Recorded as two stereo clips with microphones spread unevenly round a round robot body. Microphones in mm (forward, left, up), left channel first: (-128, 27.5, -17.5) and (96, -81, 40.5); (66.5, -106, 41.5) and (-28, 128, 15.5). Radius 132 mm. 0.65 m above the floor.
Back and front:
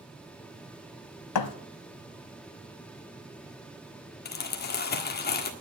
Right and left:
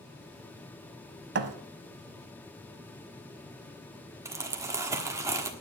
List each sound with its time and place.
1.4 s a thud: 165° left, 0.8 m
4.2 s crumpling: 175° right, 1.3 m